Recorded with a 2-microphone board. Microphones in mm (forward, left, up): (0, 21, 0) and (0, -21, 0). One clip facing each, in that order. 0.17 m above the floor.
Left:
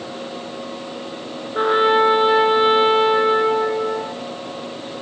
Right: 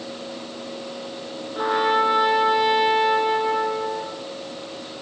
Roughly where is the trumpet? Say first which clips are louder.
Left 5 dB; left.